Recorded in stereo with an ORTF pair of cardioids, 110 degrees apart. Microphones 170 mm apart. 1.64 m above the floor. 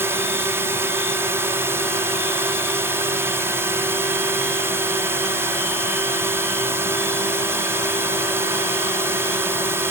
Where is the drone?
15° right.